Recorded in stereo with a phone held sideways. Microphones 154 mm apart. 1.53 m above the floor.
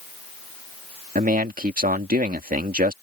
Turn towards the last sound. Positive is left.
turn(degrees=-70)  # may be behind; listen again after turning